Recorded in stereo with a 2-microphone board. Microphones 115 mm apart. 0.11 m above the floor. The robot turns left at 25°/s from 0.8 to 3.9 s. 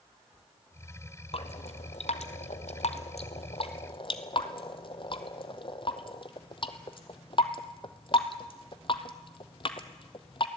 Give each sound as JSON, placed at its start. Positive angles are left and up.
{"t": 1.3, "sound": "dripping", "side_deg": 60, "distance_m": 1.2}